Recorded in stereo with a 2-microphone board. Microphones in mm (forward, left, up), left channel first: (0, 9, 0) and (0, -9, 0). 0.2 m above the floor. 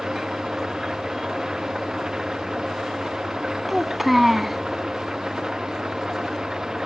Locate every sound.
0.0 s an engine running: 35° right (ahead or behind)
3.7 s a child speaking: 10° right (ahead or behind)